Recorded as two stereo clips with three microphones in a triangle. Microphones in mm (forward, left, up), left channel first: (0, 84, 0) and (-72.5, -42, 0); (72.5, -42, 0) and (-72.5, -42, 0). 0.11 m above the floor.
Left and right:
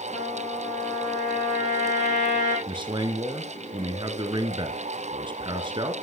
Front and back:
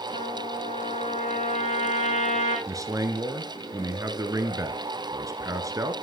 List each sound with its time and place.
0.1 s a trumpet: 30° left, 5 m
2.7 s a man speaking: 130° right, 1.3 m